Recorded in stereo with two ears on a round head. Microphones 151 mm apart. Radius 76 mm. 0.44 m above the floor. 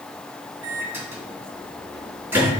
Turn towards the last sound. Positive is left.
turn(degrees=-10)  # may be behind; listen again after turning